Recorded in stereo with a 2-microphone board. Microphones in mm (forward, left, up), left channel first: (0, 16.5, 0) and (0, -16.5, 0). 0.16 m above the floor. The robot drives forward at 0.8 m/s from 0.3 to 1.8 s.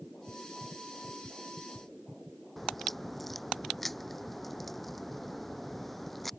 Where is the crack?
5° left (ahead or behind).